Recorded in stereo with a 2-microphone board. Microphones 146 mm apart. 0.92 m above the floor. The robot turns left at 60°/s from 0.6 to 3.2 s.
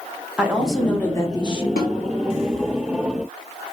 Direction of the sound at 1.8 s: 75° left (ahead or behind).